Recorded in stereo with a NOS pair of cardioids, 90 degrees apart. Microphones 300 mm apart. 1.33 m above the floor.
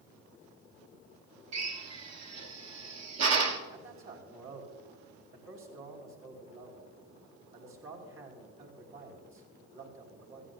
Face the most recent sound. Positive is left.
turn(degrees=-45)